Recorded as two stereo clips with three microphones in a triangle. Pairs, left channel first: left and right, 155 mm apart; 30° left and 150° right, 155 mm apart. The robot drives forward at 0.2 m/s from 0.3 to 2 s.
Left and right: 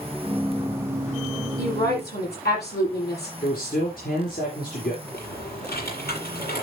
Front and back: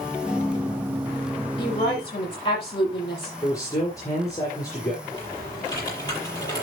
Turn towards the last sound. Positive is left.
turn(degrees=95)